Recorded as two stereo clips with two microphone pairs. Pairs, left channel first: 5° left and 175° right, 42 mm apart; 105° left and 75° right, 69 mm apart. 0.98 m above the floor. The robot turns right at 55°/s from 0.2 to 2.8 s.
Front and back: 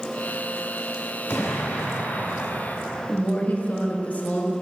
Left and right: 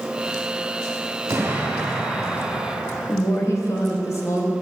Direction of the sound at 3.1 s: 60° left.